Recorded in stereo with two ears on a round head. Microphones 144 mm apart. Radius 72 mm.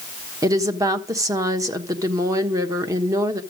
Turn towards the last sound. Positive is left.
turn(degrees=-20)  # may be behind; listen again after turning